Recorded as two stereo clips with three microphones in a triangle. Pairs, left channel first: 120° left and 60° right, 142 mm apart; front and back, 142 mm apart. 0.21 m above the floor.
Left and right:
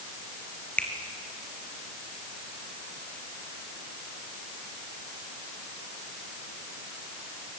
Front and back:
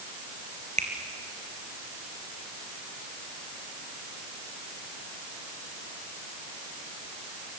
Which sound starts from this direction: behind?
A finger snap, at 0.8 s.